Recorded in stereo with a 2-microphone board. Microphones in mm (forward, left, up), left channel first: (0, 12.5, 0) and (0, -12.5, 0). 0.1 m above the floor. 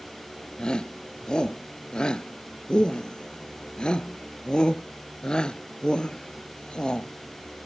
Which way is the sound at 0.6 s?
35° left (ahead or behind).